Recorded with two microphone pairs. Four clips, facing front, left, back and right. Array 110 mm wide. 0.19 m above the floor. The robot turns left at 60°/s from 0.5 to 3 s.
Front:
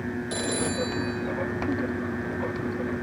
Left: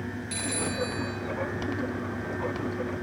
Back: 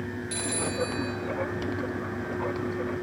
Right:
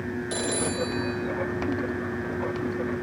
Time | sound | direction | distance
0.3 | a phone ringing | 55° right | 3.5 m